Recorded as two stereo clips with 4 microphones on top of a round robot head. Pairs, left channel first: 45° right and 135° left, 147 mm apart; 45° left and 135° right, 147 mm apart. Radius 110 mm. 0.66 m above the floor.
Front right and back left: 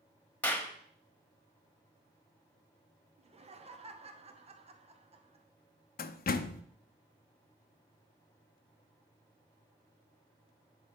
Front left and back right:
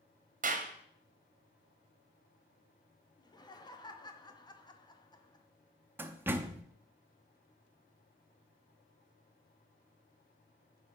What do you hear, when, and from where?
0.4 s a clap: 125° right, 1.1 m
3.2 s laughter: 100° left, 1.1 m
6.0 s a door slam: 60° right, 0.5 m